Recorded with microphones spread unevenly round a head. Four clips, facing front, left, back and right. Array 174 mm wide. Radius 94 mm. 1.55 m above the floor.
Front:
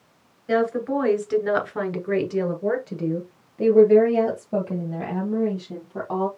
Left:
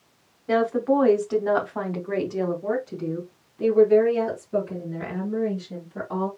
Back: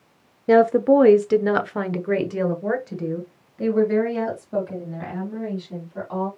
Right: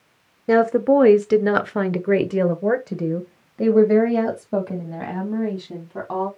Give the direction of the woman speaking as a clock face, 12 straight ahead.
5 o'clock.